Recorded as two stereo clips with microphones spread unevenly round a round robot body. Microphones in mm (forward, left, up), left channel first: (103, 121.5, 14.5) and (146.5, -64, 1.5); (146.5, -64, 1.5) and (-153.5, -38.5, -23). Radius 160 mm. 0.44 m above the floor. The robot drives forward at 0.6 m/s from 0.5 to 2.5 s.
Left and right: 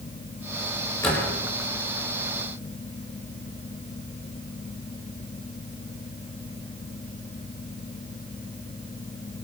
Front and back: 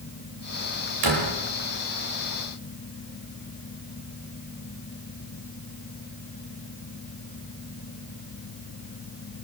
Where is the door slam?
175° right, 8 m.